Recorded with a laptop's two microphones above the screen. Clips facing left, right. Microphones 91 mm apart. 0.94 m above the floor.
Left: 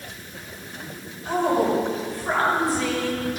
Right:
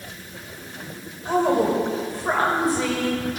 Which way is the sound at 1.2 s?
25° right (ahead or behind).